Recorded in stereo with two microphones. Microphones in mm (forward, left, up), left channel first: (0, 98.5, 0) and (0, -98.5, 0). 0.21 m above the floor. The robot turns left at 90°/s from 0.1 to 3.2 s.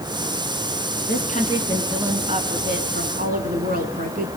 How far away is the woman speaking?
About 3 m.